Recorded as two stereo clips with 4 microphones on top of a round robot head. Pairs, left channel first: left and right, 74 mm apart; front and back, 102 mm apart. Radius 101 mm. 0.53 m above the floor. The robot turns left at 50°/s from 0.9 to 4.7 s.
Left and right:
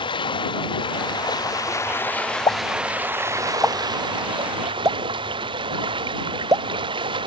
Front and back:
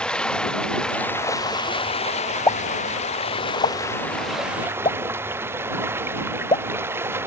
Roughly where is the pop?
Ahead left.